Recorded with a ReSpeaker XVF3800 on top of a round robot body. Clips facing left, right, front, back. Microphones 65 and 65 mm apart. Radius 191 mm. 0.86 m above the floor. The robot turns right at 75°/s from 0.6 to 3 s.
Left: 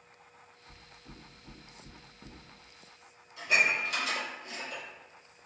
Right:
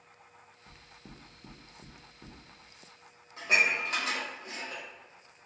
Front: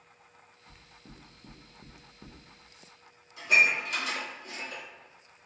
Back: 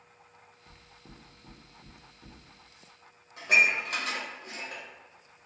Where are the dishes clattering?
140° right, 1.0 m.